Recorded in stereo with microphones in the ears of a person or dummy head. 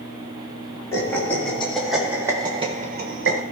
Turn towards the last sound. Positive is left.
turn(degrees=-65)  # may be behind; listen again after turning